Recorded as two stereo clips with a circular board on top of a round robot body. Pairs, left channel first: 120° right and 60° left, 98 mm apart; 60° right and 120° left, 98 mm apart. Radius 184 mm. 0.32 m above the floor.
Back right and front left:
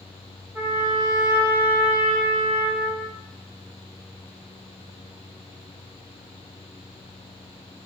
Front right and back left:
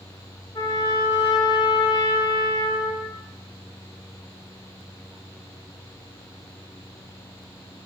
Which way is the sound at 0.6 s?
10° right.